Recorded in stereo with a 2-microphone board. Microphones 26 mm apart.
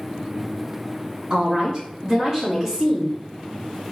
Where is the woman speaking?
40° right (ahead or behind), 2.0 m; by 3.2 s 5° right (ahead or behind), 2.0 m.